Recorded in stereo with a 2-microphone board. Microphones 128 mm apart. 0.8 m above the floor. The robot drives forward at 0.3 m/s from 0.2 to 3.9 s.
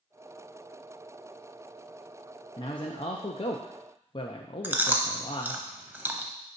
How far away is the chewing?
About 0.7 m.